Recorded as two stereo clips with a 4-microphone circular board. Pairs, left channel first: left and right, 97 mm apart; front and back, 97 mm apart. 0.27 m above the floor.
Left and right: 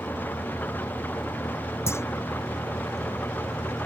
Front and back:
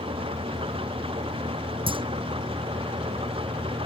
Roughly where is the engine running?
Behind.